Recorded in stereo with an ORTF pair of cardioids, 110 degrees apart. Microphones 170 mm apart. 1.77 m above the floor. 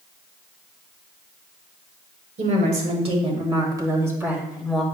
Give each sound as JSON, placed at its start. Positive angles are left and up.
{"t": 2.4, "sound": "a woman speaking", "azimuth_deg": -50, "distance_m": 2.5}